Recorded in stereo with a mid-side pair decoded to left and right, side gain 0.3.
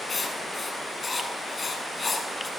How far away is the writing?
About 7.5 m.